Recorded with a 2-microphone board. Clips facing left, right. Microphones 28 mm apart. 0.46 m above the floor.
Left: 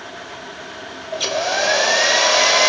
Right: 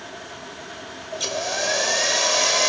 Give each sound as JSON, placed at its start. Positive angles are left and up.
{"t": 1.1, "sound": "a hair dryer", "side_deg": 30}